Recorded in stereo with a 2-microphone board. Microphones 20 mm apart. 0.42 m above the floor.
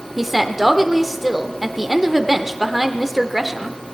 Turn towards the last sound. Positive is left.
turn(degrees=-10)  # may be behind; listen again after turning